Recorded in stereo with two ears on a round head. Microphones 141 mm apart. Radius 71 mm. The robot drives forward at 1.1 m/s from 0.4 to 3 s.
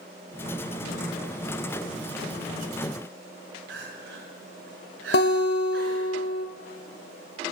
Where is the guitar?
70° left (ahead or behind), 0.9 m.